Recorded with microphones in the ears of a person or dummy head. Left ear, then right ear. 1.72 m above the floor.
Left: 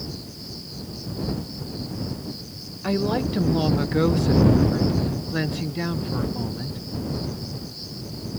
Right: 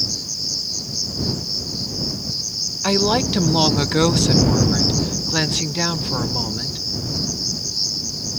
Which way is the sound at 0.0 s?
35° right (ahead or behind).